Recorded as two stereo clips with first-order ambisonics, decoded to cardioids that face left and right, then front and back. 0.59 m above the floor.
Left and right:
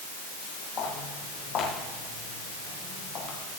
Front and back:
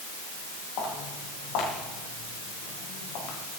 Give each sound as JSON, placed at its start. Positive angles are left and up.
{"t": 0.8, "sound": "footsteps", "azimuth_deg": 35, "distance_m": 8.0}